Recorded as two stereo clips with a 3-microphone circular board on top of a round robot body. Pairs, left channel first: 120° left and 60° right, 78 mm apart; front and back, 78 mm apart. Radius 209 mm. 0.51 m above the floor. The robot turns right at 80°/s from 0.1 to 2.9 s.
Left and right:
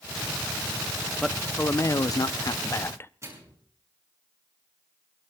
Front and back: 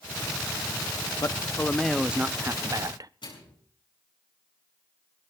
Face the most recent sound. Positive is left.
turn(degrees=-10)